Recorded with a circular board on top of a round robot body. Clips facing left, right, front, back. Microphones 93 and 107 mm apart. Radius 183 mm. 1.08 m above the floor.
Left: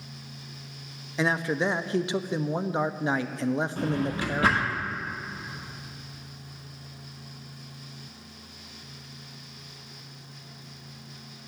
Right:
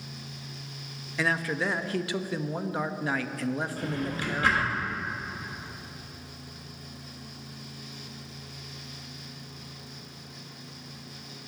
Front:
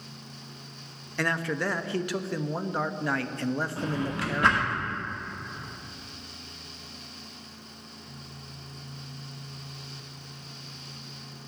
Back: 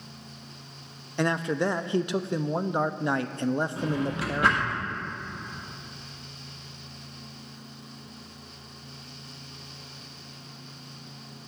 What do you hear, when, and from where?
1.2 s a man speaking: 130° left, 0.5 m
3.8 s a drawer: 100° left, 1.0 m